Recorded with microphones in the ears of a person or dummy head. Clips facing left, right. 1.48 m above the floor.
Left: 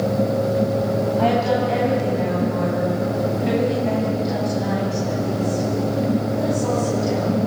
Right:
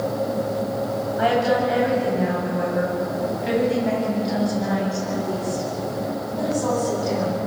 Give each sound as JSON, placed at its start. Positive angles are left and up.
{"t": 1.2, "sound": "a woman speaking", "side_deg": -15, "distance_m": 9.0}